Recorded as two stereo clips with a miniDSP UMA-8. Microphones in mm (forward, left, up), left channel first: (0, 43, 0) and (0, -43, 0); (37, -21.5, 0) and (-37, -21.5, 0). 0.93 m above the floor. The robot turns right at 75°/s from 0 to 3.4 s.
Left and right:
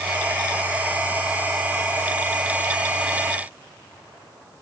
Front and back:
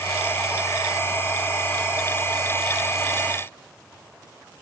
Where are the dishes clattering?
I don't hear dishes clattering.